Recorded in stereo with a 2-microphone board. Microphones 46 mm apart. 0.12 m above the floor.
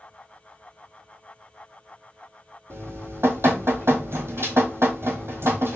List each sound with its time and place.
2.7 s dripping: 70° right (ahead or behind), 1.1 m